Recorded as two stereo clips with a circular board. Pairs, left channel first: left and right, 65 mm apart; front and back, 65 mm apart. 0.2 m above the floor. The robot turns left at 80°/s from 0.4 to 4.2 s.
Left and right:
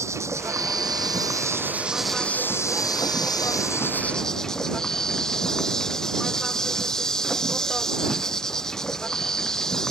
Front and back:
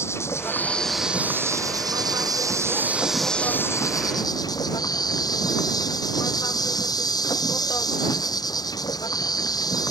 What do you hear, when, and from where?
0.0 s an insect: 45° right; by 9.9 s 10° left